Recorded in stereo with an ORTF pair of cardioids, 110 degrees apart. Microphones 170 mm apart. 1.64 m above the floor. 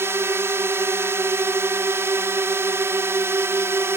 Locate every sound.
0.0 s a drone: 15° right